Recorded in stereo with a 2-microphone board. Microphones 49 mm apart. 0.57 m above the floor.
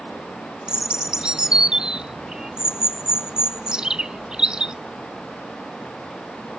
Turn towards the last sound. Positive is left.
turn(degrees=-15)  # may be behind; listen again after turning